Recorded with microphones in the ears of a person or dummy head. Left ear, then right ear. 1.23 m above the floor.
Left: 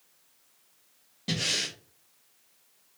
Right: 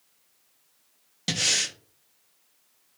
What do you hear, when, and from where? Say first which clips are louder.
1.3 s breathing: right 4 dB; 50° right (ahead or behind), 0.5 m